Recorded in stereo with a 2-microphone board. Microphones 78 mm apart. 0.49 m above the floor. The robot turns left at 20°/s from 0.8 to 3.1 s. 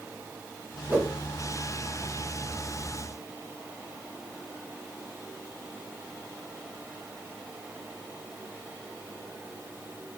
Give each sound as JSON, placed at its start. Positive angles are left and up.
{"t": 0.9, "sound": "a whoosh", "side_deg": -20, "distance_m": 1.0}